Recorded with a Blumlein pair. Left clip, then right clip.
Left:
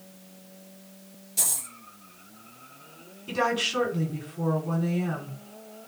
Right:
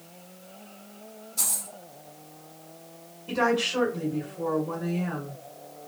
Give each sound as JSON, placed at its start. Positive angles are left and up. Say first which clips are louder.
{"t": 1.4, "sound": "a dropped coin", "louder": "left 1 dB", "azimuth_deg": 60, "distance_m": 2.5}
{"t": 3.3, "sound": "a woman speaking", "louder": "right 1 dB", "azimuth_deg": 65, "distance_m": 3.0}